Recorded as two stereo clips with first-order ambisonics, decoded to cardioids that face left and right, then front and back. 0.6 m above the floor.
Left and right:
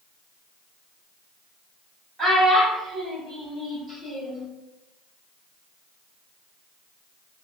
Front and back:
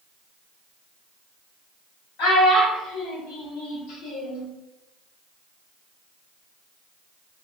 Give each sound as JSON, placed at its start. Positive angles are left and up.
{"t": 2.2, "sound": "a child speaking", "azimuth_deg": -5, "distance_m": 1.9}